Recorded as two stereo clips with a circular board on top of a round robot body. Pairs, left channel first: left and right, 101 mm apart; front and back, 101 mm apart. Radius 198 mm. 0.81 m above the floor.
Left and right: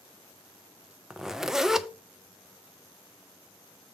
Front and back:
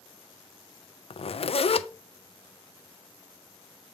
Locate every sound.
1.1 s a zipper: 5° right, 0.7 m